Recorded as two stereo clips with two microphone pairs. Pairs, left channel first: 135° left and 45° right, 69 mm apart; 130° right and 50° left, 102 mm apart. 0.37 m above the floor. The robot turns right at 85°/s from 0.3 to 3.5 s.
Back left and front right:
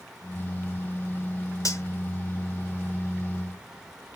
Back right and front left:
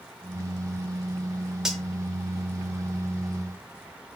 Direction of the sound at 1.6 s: 135° left.